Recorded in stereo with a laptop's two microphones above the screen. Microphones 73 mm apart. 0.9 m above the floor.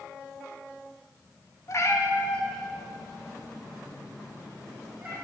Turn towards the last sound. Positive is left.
turn(degrees=-25)  # may be behind; listen again after turning